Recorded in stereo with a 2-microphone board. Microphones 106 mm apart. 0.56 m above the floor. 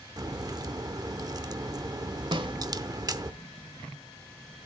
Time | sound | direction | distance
0.2 | a crack | 35° right (ahead or behind) | 0.6 m
2.3 | a snare drum | 50° right (ahead or behind) | 0.8 m